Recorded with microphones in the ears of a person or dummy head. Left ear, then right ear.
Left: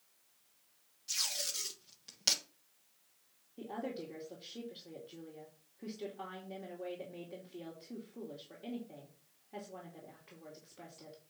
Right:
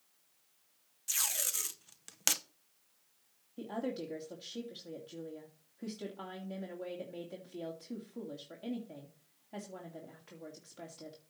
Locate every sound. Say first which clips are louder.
1.1 s tape being pulled: right 1 dB; 35° right (ahead or behind), 0.8 m
3.6 s a woman speaking: right 3 dB; 60° right (ahead or behind), 2.5 m